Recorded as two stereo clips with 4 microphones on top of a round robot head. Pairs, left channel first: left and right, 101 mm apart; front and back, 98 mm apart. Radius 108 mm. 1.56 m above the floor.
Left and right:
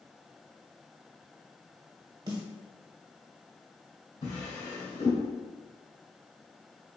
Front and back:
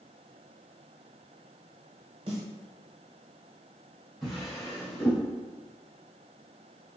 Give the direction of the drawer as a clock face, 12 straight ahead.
9 o'clock.